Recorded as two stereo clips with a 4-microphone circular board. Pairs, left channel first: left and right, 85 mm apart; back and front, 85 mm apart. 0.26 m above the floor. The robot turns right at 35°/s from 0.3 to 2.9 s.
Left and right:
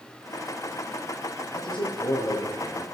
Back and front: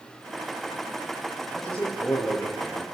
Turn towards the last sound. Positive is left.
turn(degrees=145)